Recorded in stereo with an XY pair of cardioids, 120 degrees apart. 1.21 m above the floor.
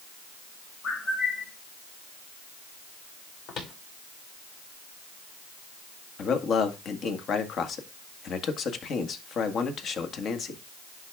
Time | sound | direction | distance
0.8 | a bird | 55° left | 2.5 m
3.5 | footsteps | 65° left | 4.5 m
6.2 | a man speaking | 50° left | 1.6 m